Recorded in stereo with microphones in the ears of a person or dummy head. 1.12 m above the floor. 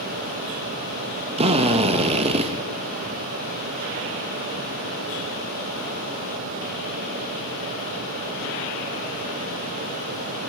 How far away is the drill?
About 1.3 m.